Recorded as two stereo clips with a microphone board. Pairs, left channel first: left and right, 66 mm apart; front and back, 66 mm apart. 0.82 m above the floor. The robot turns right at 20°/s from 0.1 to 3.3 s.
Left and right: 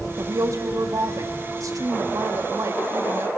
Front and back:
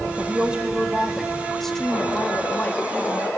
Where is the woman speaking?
115° right, 1.6 m; by 3.3 s 50° right, 1.6 m.